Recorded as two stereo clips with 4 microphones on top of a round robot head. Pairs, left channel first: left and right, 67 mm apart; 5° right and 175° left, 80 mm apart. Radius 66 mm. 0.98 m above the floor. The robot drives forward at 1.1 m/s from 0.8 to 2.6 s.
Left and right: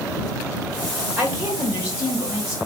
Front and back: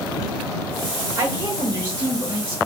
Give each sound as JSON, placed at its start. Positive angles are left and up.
{"t": 1.2, "sound": "a woman speaking", "azimuth_deg": -160, "distance_m": 1.2}